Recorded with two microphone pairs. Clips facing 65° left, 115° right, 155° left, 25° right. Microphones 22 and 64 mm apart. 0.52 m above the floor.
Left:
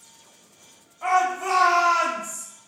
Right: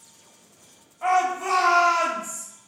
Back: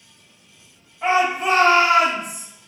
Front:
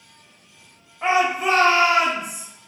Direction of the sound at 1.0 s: 55° right.